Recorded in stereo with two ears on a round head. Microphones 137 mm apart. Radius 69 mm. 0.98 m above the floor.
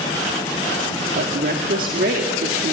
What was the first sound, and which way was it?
A woman speaking, 65° right (ahead or behind).